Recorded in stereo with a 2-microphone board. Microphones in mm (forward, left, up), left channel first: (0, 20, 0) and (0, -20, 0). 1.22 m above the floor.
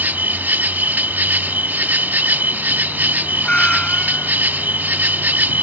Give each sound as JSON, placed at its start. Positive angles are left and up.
{"t": 0.0, "sound": "an insect", "side_deg": -50}
{"t": 3.4, "sound": "a cat meowing", "side_deg": 25}